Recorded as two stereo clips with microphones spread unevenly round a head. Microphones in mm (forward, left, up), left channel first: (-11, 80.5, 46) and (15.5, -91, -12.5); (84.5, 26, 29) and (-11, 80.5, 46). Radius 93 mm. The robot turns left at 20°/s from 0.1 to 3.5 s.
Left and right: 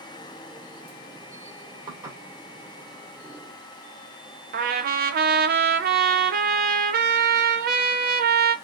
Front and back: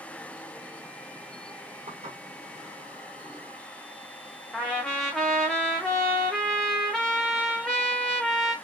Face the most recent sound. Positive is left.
turn(degrees=-115)